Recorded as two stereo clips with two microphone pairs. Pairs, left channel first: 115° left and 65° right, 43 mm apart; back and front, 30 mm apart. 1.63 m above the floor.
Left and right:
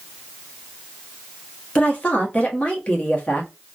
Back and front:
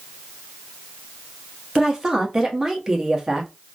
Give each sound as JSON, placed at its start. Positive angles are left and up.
{"t": 1.8, "sound": "a woman speaking", "azimuth_deg": 65, "distance_m": 1.0}